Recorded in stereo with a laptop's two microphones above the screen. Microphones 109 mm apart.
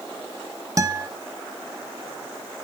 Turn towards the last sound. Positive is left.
turn(degrees=-30)  # may be behind; listen again after turning